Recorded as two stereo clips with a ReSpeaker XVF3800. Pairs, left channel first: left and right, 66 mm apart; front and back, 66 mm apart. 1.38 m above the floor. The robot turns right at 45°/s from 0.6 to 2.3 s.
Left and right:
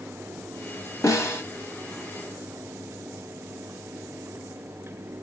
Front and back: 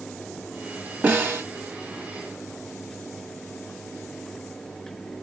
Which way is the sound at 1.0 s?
120° left.